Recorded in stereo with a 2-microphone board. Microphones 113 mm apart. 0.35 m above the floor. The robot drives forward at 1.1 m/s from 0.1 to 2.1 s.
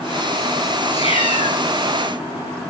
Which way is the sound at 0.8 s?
55° left (ahead or behind).